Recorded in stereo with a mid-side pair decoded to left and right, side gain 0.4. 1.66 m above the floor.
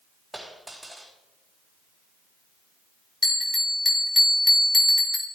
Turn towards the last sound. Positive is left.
turn(degrees=30)